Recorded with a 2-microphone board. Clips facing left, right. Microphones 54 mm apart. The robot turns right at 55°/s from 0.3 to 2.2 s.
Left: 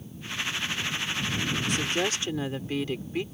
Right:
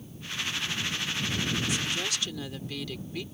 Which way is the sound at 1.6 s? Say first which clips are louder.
Left 4 dB; 120° left.